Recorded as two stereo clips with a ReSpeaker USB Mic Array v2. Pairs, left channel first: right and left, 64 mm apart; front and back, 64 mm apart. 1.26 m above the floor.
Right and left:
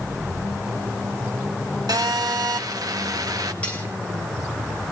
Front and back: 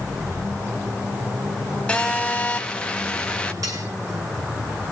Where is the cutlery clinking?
155° right, 6 m.